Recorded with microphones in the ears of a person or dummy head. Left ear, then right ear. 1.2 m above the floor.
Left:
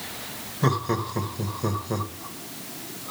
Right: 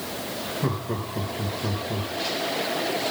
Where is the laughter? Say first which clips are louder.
Left 4 dB; 65° left (ahead or behind), 1.5 m.